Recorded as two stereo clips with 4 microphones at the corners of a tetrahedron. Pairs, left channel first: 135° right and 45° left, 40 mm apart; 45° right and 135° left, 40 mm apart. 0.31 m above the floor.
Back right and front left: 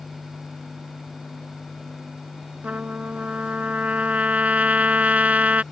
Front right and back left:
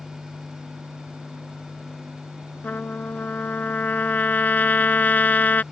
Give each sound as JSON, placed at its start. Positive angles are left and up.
{"t": 2.6, "sound": "a trumpet", "azimuth_deg": -5}